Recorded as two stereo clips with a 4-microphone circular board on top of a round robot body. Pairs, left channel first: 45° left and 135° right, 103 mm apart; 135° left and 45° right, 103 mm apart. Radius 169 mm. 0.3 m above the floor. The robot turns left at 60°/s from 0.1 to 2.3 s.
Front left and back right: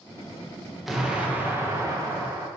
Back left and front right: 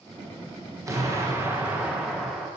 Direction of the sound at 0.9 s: 50° right.